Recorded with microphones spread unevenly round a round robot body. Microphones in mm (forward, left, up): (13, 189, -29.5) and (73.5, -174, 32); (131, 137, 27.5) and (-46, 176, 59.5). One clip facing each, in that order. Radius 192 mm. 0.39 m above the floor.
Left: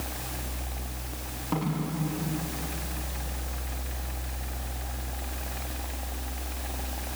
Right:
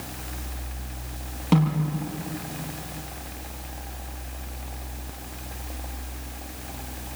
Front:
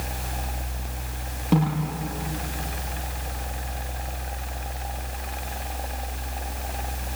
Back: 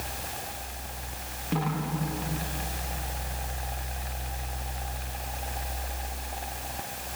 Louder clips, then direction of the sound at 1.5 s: Right 7 dB, front 7 dB; 70° right.